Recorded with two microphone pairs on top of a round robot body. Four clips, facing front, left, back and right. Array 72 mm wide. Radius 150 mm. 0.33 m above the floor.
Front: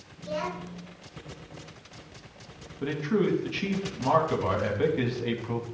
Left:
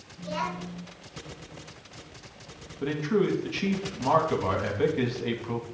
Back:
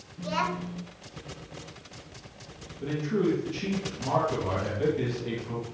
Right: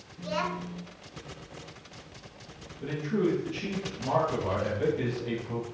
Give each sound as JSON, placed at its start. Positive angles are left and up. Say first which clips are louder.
{"t": 0.2, "sound": "a child speaking", "louder": "even, back 3 dB", "azimuth_deg": 180, "distance_m": 3.0}
{"t": 2.8, "sound": "a man speaking", "louder": "left 3 dB, front 1 dB", "azimuth_deg": 55, "distance_m": 4.0}